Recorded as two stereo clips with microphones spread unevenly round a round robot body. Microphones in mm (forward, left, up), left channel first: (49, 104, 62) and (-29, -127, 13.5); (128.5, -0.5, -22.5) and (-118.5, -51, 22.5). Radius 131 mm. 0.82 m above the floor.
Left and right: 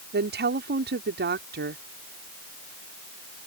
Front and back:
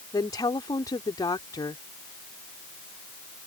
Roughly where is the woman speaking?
Ahead right.